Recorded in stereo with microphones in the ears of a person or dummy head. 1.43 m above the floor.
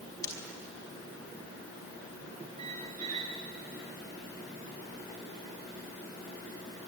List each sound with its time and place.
0.2 s breaking glass: 20° left (ahead or behind), 5 m
2.6 s a squeak: 40° right (ahead or behind), 3 m